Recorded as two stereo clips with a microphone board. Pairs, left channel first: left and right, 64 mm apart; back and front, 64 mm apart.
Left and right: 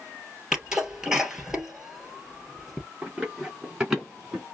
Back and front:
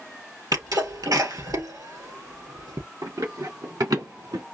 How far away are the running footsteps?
About 3.5 m.